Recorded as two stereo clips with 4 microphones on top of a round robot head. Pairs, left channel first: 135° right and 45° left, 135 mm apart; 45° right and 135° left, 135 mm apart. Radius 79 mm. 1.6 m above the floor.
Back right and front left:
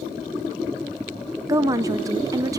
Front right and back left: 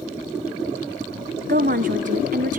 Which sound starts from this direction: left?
A woman speaking, at 1.5 s.